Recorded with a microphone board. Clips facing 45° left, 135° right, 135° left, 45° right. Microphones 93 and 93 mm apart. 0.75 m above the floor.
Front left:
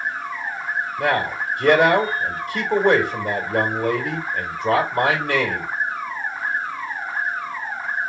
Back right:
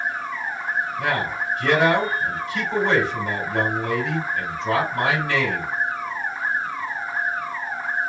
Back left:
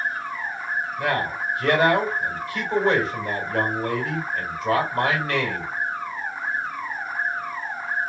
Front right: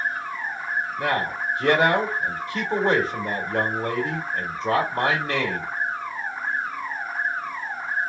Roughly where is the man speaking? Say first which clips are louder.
Front left 3 dB, back left 1 dB; ahead.